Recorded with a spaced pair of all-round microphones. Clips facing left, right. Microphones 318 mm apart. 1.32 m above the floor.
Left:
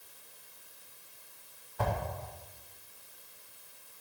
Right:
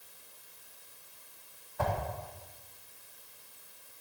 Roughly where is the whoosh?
Left.